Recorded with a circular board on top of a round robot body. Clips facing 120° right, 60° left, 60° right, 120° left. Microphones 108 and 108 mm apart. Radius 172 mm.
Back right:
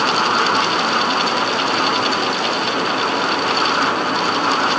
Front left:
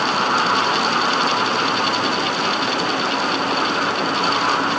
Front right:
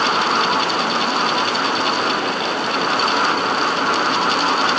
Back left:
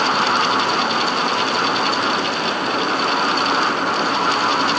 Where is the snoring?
I don't hear snoring.